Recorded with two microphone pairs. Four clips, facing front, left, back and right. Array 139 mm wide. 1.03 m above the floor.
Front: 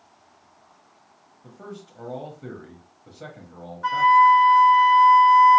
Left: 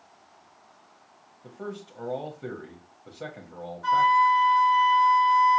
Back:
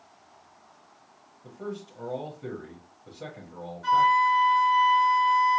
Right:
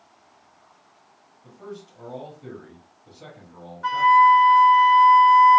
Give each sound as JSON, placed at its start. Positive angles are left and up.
{"t": 1.4, "sound": "a man speaking", "azimuth_deg": 70, "distance_m": 1.0}
{"t": 3.8, "sound": "a flute", "azimuth_deg": -30, "distance_m": 3.0}